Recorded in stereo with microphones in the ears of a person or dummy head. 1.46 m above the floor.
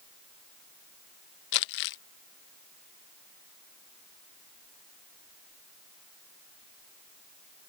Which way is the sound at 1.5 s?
60° left (ahead or behind).